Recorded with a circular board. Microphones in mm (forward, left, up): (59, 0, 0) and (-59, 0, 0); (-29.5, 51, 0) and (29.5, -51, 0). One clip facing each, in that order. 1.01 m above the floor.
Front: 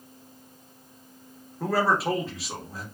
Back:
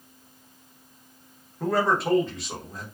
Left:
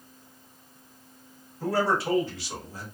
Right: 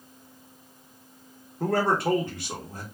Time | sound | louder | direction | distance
1.6 | a man speaking | even, right 2 dB | 90° right | 0.9 m